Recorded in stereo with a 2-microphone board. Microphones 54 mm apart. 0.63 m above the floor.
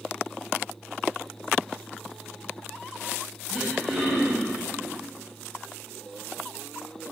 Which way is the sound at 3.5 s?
Centre (ahead or behind).